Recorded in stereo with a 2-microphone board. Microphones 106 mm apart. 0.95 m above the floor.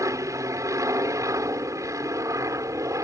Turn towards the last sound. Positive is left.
turn(degrees=-30)  # may be behind; listen again after turning